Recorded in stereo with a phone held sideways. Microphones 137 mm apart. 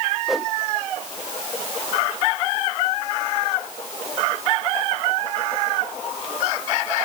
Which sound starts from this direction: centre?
A whoosh, at 0.3 s.